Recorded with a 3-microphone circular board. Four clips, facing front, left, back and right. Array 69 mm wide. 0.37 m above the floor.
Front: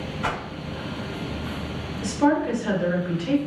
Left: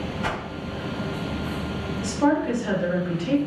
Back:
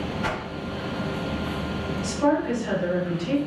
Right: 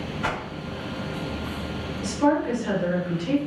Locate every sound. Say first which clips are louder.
0.2 s a whoosh: right 1 dB, front 3 dB; 55° right, 1.2 m
2.0 s a woman speaking: even, front 2 dB; 5° left, 1.0 m